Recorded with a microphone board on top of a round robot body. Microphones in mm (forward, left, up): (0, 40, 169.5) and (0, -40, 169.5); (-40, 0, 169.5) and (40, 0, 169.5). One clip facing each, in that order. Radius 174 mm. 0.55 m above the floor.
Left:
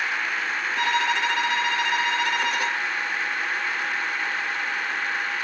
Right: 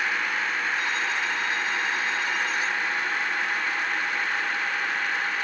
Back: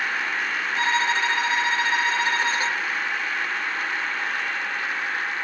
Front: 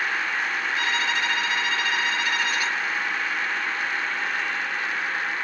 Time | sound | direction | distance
0.8 | a violin | 120° left | 0.6 m